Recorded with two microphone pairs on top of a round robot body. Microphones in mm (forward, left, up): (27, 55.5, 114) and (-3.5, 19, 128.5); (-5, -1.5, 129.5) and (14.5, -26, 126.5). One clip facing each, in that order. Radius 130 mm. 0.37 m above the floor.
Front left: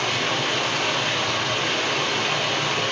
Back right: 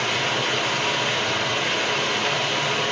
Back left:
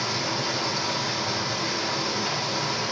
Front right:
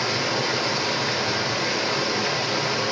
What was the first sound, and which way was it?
Running water, 45° right.